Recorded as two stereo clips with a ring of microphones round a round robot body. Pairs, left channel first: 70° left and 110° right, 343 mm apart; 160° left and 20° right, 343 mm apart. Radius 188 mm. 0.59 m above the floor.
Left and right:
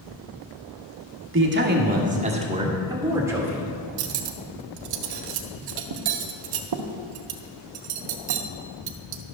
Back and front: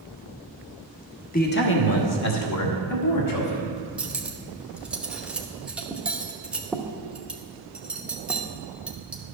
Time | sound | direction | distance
1.3 | a man speaking | 145° right | 1.3 m
4.0 | cutlery clinking | 110° right | 0.8 m